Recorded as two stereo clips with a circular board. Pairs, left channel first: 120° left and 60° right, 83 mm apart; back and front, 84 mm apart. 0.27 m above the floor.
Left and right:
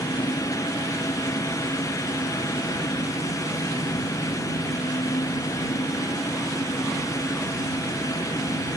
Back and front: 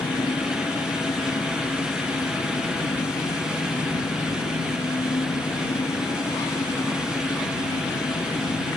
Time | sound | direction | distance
0.0 | an engine running | 145° left | ?